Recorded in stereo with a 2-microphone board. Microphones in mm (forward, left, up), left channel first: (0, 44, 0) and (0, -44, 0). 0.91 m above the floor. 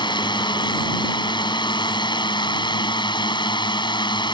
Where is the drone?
65° left (ahead or behind).